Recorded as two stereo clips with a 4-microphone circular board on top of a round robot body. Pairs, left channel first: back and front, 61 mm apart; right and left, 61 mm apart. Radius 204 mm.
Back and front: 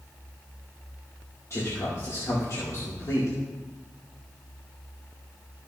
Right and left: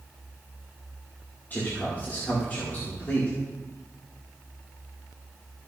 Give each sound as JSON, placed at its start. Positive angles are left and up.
{"t": 1.5, "sound": "a man speaking", "azimuth_deg": -145, "distance_m": 2.5}